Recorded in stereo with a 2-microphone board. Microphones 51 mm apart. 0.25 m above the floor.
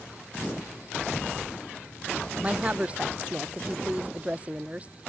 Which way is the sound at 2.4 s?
25° right (ahead or behind).